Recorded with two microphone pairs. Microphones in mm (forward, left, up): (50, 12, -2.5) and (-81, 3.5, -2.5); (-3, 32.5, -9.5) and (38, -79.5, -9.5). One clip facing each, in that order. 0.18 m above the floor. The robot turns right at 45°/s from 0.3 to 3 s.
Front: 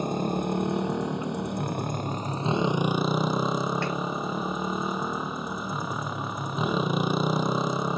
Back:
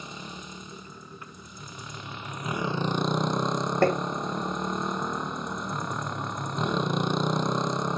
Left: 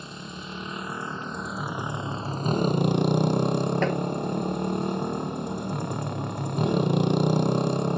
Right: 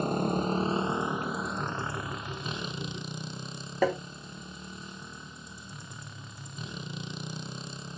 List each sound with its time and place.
0.0 s a motorcycle: 35° right; by 8.0 s 90° left
3.8 s tapping: 150° right